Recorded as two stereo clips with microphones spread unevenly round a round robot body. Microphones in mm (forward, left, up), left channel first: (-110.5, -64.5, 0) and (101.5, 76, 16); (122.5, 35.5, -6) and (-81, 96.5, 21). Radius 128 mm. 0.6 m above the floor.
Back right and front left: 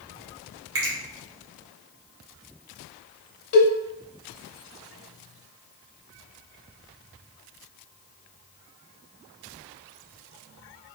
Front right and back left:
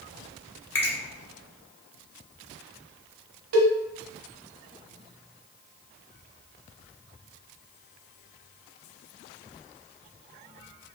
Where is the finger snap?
60° left, 2 m.